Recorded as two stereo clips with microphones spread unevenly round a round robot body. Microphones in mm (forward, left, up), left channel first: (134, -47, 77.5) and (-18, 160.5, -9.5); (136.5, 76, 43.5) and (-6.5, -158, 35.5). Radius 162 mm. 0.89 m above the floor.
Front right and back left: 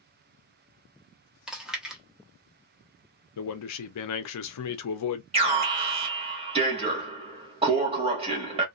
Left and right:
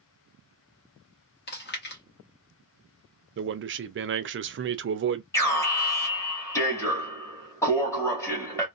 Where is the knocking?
I don't hear knocking.